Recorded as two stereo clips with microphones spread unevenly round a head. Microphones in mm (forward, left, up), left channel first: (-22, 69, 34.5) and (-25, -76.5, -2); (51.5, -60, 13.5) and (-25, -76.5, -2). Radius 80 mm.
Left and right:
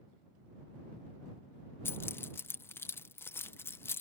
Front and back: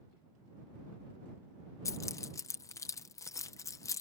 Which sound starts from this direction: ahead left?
Keys jangling, at 1.9 s.